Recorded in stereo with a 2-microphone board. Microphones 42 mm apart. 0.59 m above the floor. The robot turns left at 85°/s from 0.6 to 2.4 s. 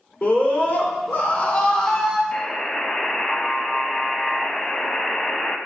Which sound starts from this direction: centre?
A buzzer, at 2.3 s.